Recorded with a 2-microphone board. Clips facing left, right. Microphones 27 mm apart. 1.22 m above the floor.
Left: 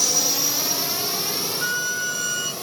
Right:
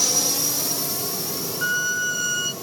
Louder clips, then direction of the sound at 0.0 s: Left 1 dB; centre (ahead or behind).